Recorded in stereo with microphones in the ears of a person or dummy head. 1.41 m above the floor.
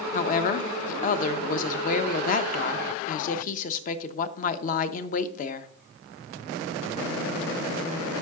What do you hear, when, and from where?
0.1 s a woman speaking: 45° left (ahead or behind), 0.6 m